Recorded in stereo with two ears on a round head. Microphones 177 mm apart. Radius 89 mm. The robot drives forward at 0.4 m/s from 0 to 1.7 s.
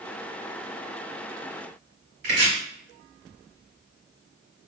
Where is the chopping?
55° right (ahead or behind), 2.0 m.